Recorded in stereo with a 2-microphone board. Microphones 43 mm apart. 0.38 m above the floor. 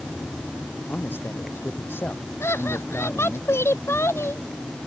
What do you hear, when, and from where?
0.9 s a man speaking: 60° left (ahead or behind)
2.4 s laughter: 80° left